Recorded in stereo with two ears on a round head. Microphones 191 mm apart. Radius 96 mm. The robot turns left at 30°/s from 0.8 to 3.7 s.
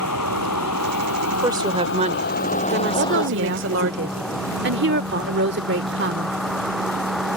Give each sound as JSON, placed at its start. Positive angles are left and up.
{"t": 0.0, "sound": "a vehicle", "side_deg": 90}
{"t": 1.4, "sound": "a woman speaking", "azimuth_deg": -15}
{"t": 3.0, "sound": "a woman speaking", "side_deg": -60}